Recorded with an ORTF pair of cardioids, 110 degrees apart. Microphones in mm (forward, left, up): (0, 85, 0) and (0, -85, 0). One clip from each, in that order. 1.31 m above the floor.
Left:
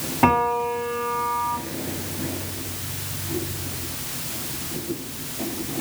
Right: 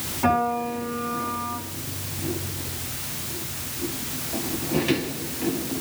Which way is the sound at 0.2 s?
70° left.